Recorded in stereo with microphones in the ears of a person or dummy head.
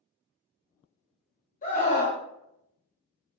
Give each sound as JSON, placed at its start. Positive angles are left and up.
{"t": 1.6, "sound": "a scream", "side_deg": 30, "distance_m": 0.9}